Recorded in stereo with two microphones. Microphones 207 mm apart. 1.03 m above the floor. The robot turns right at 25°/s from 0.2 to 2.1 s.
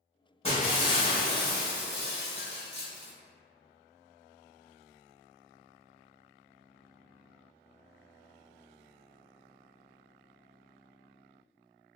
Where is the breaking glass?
30° left, 1.1 m; by 3.1 s 75° left, 1.1 m.